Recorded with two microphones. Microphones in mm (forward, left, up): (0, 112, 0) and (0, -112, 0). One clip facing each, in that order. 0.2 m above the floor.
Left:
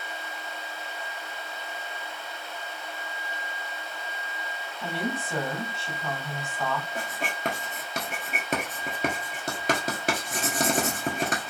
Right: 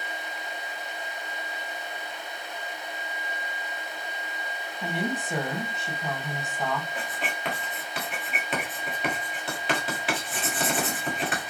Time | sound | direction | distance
4.8 | a woman speaking | 15° right (ahead or behind) | 1.1 m
7.0 | writing | 45° left (ahead or behind) | 1.2 m